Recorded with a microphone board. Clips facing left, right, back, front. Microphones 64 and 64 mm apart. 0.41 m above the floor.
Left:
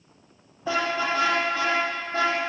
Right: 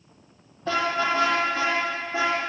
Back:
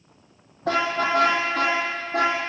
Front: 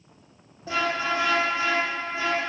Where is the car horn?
175° left, 5.5 m; by 2.4 s 175° right, 6 m.